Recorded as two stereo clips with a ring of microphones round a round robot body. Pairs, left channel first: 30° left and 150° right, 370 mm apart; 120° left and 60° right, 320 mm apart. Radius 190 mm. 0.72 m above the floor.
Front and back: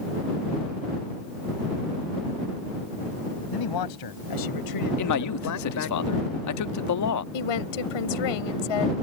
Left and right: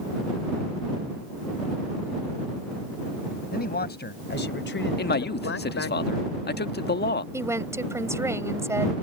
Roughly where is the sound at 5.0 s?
Ahead left.